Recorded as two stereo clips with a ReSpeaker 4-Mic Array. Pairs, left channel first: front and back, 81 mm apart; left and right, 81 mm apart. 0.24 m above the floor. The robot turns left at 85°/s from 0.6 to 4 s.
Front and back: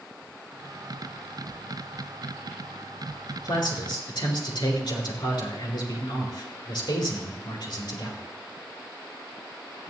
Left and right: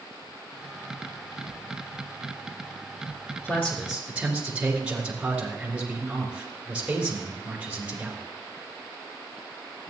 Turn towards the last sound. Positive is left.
turn(degrees=-10)